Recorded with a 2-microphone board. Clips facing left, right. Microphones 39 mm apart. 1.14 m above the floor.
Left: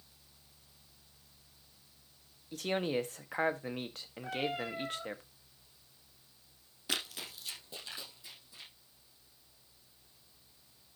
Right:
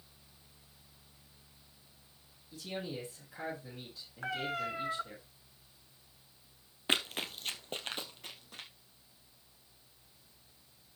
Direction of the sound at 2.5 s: 70° left (ahead or behind).